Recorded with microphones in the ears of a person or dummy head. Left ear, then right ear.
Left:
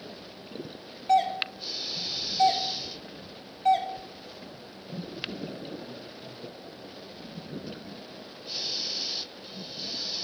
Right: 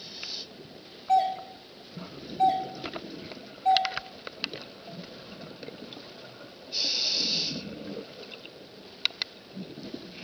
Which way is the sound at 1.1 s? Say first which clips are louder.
Left 1 dB; 30° left (ahead or behind).